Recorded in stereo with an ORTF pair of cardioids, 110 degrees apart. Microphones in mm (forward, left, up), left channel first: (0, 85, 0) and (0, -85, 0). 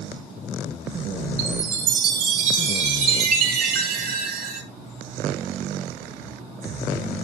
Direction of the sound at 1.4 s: 60° right.